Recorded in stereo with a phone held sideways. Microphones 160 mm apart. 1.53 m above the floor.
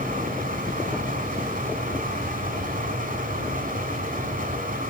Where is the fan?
70° right (ahead or behind), 2.5 m.